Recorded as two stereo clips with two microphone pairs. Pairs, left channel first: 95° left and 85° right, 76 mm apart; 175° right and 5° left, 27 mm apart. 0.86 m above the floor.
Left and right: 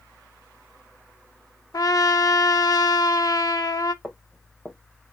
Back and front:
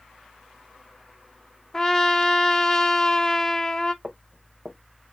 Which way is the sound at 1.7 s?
120° left.